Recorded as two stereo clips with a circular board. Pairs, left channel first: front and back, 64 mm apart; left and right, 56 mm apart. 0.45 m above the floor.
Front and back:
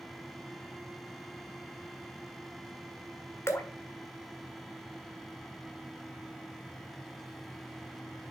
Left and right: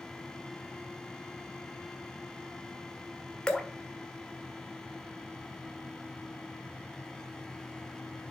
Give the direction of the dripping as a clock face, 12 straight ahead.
11 o'clock.